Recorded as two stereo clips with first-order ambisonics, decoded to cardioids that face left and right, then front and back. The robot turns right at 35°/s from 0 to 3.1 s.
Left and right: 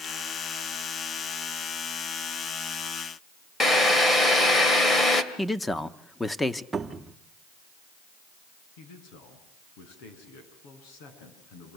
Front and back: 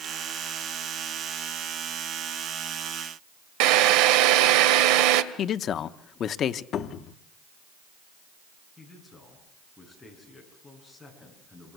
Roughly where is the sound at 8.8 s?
Left.